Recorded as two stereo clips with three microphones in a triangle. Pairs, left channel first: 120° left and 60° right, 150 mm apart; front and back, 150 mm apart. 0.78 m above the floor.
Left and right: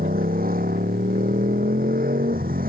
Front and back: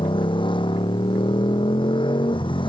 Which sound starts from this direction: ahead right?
A motorcycle, at 0.0 s.